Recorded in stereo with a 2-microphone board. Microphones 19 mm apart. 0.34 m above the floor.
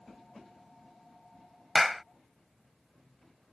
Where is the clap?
10° right (ahead or behind).